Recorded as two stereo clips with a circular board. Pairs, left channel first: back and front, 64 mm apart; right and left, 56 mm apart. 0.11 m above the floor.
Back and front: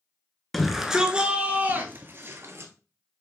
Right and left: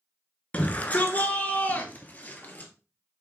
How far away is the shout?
About 1.2 m.